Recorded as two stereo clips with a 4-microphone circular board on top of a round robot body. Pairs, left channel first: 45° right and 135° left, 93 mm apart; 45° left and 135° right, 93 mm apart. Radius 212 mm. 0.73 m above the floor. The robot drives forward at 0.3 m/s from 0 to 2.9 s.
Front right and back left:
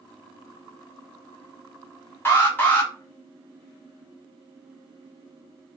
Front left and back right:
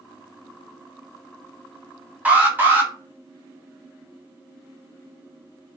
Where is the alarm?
80° right, 1.5 m; by 2.9 s 95° right, 1.5 m.